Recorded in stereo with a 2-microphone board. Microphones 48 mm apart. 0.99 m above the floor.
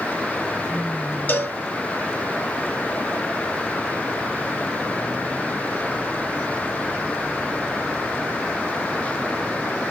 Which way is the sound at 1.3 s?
50° left (ahead or behind).